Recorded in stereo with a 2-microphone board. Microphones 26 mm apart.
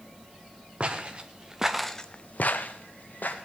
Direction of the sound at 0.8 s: 45° right (ahead or behind).